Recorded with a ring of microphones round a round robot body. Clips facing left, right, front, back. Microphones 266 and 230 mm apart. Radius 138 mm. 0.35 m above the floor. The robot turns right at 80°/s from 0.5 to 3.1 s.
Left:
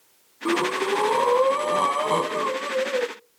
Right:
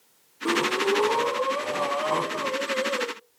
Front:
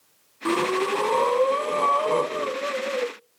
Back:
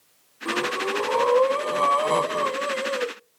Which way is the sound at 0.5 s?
Straight ahead.